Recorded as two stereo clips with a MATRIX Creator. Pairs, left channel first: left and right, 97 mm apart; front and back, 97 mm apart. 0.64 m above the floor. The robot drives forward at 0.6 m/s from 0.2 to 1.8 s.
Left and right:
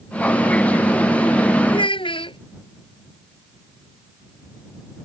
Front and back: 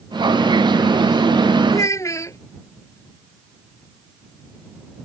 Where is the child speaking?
60° left.